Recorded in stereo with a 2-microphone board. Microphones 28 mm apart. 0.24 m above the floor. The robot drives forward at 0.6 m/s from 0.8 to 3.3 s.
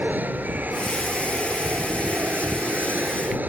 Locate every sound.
0.0 s an aircraft: 70° right (ahead or behind)